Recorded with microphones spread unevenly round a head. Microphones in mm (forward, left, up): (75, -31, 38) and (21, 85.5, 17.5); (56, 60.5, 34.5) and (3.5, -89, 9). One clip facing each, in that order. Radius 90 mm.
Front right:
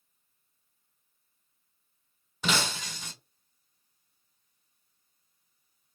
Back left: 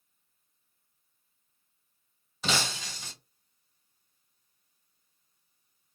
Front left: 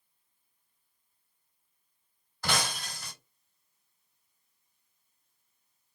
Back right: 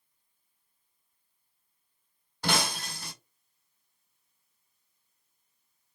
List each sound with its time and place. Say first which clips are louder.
2.4 s breaking glass: front right 1 dB, back right 3 dB; 45° right, 1.7 m